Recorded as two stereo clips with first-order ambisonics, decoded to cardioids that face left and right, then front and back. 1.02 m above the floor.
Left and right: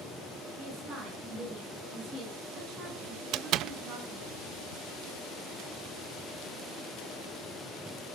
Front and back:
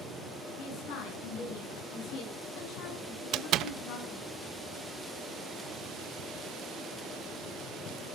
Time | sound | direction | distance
0.6 | a woman speaking | 30° right | 9.5 m
3.3 | a door slam | 135° right | 0.5 m